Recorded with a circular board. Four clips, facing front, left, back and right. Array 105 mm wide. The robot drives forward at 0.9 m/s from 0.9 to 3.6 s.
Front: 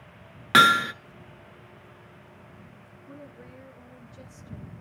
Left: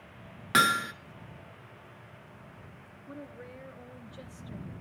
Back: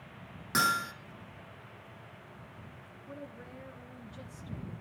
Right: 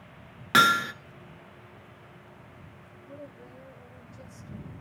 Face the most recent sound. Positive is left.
turn(degrees=120)